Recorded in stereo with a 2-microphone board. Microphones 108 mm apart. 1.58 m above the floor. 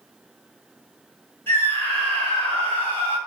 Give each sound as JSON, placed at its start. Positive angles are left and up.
{"t": 1.5, "sound": "a scream", "side_deg": 20, "distance_m": 1.6}